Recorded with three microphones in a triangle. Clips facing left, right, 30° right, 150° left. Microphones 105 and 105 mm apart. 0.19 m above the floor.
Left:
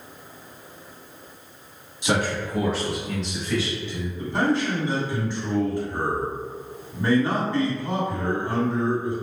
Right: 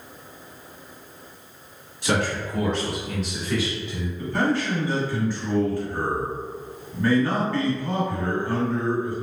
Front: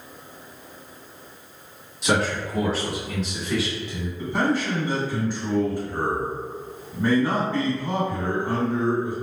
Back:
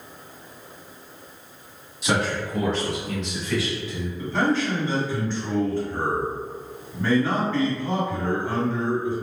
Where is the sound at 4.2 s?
35° left, 1.6 m.